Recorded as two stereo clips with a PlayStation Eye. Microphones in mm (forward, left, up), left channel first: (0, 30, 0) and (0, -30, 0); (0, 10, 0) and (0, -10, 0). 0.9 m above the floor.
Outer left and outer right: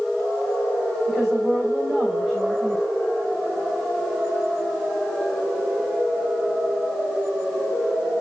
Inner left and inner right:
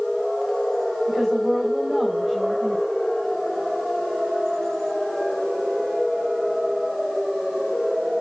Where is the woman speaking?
5° right (ahead or behind), 3 m.